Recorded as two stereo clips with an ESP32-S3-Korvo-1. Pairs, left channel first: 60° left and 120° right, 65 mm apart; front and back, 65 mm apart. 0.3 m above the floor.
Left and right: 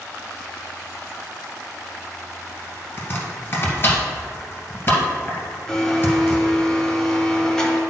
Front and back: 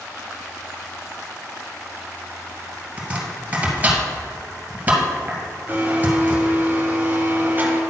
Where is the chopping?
115° left, 2 m.